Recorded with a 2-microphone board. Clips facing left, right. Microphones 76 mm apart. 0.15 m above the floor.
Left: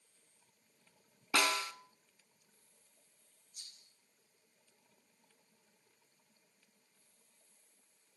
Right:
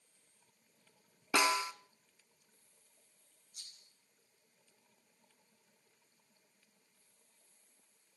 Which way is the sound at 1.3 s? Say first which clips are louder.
Right 2 dB; 20° right (ahead or behind).